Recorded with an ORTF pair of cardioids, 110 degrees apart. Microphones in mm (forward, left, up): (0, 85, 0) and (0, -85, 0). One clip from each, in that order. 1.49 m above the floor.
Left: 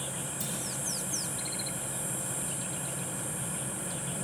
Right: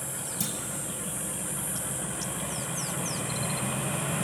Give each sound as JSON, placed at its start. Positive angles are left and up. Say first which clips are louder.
{"t": 0.4, "sound": "a clunk", "louder": "right 5 dB", "azimuth_deg": -40, "distance_m": 7.0}